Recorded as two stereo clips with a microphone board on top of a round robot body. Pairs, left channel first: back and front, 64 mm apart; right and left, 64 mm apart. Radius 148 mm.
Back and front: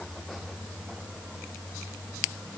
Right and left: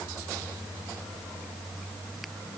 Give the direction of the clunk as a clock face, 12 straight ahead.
No clunk in this recording.